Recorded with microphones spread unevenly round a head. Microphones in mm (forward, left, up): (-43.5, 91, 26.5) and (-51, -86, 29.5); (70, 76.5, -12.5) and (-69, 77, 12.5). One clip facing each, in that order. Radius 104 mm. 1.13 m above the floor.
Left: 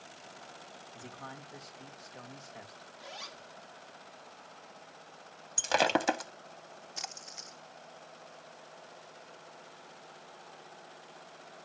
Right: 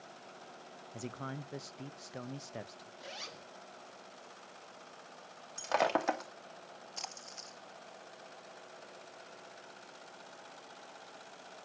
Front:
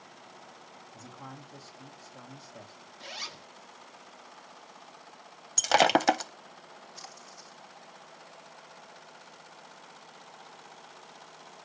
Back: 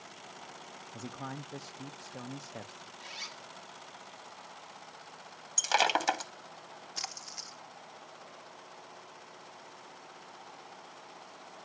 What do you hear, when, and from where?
0.9 s a man speaking: 125° right, 1.1 m
3.0 s a zipper: 30° right, 0.6 m
5.6 s breaking glass: 30° left, 0.8 m
7.0 s a splash: 170° left, 0.9 m